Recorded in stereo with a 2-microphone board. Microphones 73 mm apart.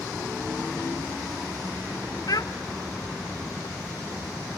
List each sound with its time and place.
2.3 s a child speaking: 60° left (ahead or behind), 0.5 m